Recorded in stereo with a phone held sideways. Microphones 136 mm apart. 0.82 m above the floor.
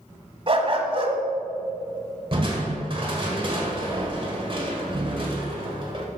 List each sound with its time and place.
0.5 s a dog barking: 40° right (ahead or behind), 1.4 m
2.3 s crushing: 40° right (ahead or behind), 1.9 m